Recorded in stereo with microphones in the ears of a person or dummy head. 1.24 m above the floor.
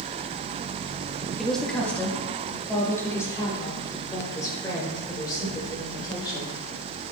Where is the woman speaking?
Centre (ahead or behind), 1.2 m; by 6.5 s 20° left (ahead or behind), 4.5 m.